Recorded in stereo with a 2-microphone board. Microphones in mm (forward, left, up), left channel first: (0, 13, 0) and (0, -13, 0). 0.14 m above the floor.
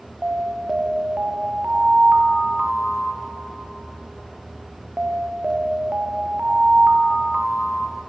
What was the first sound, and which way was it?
An alarm, 60° right (ahead or behind).